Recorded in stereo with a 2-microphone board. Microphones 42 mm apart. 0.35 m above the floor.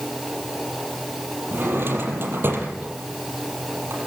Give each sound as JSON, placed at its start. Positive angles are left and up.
{"t": 1.5, "sound": "a drawer", "side_deg": -60, "distance_m": 5.5}